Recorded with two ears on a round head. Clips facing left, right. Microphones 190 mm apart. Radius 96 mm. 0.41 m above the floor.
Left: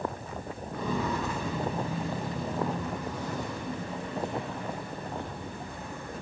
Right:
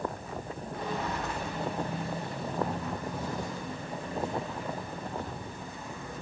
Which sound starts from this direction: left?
Footsteps, at 0.7 s.